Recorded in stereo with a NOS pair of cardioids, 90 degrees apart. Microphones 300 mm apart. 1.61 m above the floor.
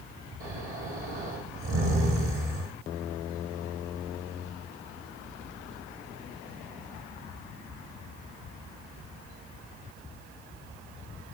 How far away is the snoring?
About 8.5 m.